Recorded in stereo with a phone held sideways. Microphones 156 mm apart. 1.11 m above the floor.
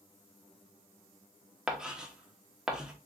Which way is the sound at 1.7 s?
5° right (ahead or behind).